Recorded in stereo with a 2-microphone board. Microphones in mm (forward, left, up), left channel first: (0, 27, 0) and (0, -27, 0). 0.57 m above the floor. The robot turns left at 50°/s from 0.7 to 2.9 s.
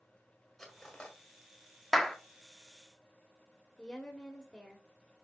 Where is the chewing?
I don't hear chewing.